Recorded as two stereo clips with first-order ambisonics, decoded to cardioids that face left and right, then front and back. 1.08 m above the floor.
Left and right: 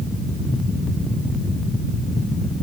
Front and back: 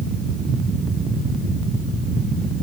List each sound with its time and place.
Only background noise.